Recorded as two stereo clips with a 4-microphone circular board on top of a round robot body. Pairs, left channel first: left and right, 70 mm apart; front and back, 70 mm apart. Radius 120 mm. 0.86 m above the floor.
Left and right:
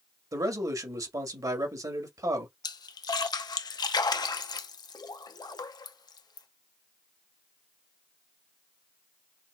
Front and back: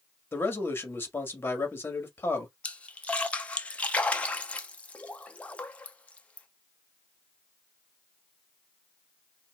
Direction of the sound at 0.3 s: 60° right.